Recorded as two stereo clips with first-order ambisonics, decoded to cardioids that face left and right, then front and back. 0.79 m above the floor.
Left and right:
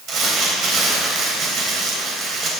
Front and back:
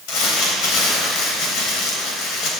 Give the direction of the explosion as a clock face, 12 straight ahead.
I don't hear an explosion.